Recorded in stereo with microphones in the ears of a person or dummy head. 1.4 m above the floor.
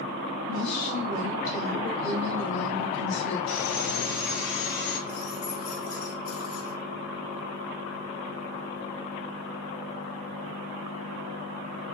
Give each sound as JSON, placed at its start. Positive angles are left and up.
{"t": 0.5, "sound": "a woman speaking", "side_deg": 65, "distance_m": 2.0}
{"t": 3.5, "sound": "sawing", "side_deg": 75, "distance_m": 2.0}
{"t": 5.1, "sound": "keys jangling", "side_deg": 45, "distance_m": 1.2}